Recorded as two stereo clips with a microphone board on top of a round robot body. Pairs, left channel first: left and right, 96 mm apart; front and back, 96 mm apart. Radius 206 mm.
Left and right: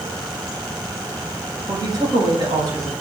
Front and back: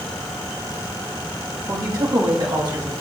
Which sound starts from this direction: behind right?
A woman speaking, at 1.7 s.